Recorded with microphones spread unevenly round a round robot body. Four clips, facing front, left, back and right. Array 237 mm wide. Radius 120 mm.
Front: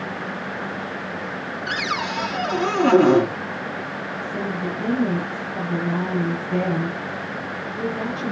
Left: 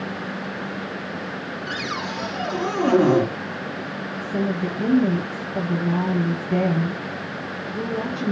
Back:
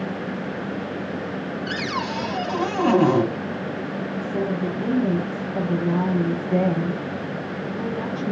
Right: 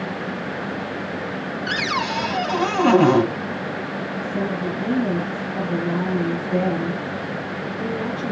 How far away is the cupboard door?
About 3.5 m.